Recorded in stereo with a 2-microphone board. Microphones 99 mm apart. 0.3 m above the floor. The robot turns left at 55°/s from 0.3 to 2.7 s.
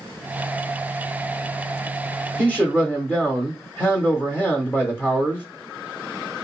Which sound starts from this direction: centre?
A man speaking, at 2.4 s.